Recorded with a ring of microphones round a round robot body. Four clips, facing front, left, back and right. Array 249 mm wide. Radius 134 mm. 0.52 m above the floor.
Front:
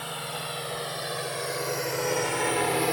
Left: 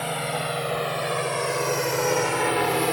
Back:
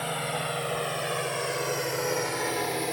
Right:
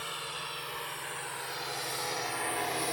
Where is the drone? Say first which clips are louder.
Left 13 dB, back 5 dB; 110° left; by 2.9 s 65° left.